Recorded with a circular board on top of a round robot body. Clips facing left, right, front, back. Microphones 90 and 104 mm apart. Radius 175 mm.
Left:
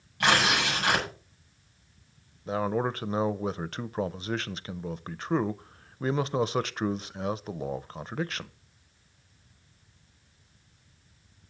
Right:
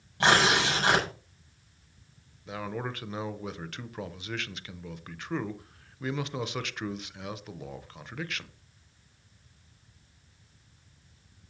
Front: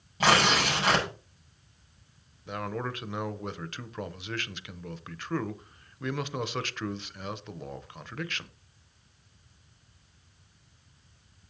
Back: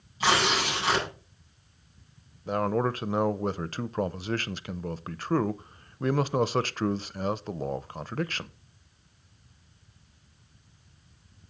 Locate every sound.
0.2 s tearing paper: 30° right, 6.5 m
2.5 s a man speaking: 135° left, 0.7 m